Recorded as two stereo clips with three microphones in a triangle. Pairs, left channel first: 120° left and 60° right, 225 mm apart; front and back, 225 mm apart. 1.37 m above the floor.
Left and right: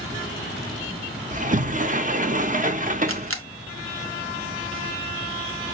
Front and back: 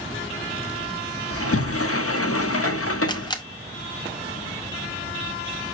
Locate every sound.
1.3 s a sliding door: 5° right, 0.7 m
3.1 s a camera shutter: 75° right, 0.7 m